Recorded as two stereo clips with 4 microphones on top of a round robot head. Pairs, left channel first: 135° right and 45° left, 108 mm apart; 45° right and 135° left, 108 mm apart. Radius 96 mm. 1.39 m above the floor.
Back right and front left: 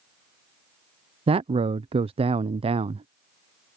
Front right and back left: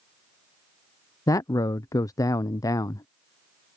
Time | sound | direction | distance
1.3 | a man speaking | 15° left | ?